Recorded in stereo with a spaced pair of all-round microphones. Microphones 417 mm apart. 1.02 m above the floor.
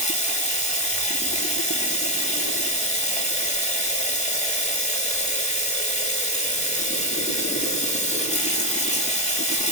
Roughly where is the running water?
Centre.